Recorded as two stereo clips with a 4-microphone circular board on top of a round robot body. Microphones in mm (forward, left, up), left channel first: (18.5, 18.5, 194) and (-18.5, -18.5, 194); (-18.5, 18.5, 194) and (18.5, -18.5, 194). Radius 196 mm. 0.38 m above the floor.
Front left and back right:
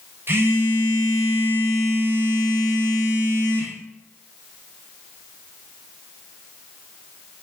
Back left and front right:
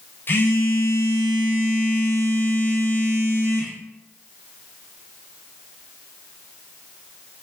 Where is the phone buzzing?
Straight behind, 0.7 m.